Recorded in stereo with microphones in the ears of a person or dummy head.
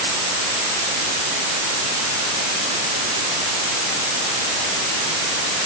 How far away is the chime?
I don't hear a chime.